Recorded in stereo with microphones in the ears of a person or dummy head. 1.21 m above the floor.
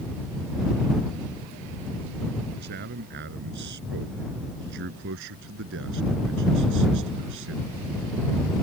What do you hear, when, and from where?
2.6 s a man speaking: 50° right (ahead or behind); by 7.7 s 65° right (ahead or behind)